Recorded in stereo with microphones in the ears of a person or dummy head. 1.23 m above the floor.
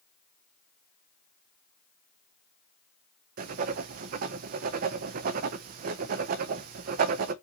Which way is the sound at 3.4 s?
50° right (ahead or behind).